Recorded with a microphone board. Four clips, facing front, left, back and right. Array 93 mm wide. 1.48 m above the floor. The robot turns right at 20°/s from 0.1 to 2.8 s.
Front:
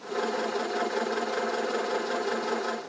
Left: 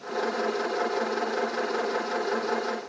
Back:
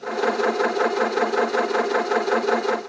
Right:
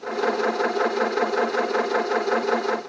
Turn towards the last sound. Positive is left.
No sound to turn to.